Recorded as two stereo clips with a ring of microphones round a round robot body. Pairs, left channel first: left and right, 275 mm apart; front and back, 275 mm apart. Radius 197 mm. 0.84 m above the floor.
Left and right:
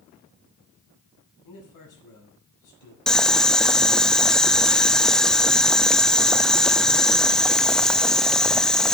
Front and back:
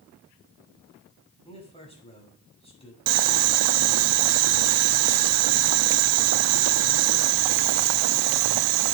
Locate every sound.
1.4 s a man speaking: 70° left, 7 m
3.1 s boiling: straight behind, 0.6 m